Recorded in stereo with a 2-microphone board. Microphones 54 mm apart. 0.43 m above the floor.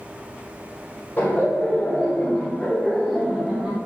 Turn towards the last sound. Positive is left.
turn(degrees=-20)  # may be behind; listen again after turning